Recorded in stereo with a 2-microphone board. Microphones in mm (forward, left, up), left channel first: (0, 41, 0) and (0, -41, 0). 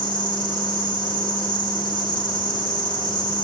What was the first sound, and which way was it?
An insect, 70° left (ahead or behind).